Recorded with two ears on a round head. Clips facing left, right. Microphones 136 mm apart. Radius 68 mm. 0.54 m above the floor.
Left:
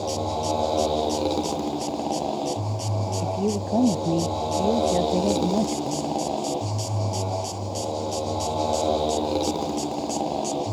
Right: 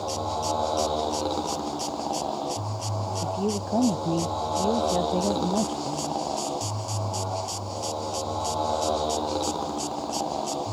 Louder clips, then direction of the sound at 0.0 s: Left 3 dB; 20° left (ahead or behind).